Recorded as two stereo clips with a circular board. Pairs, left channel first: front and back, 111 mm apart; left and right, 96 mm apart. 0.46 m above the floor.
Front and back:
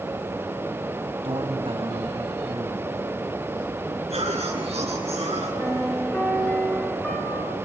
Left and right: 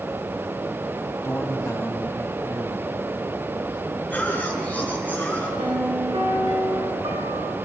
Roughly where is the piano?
Right.